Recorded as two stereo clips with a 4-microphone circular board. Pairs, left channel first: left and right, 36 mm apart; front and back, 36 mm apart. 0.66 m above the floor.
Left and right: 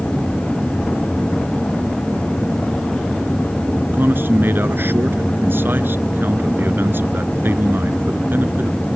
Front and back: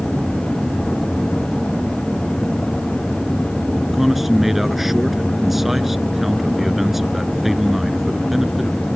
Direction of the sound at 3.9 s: 95° right.